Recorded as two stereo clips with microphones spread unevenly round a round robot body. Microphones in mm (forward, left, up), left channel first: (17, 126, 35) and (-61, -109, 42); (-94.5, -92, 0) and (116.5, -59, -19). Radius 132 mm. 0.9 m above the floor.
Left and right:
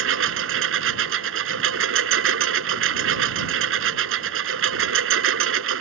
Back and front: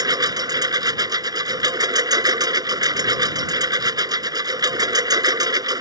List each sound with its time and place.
0.0 s a lawn mower: 65° right